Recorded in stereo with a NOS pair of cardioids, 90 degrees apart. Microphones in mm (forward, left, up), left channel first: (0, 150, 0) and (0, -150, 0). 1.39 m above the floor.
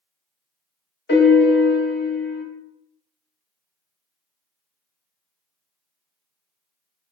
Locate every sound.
1.1 s a piano: 35° left, 0.9 m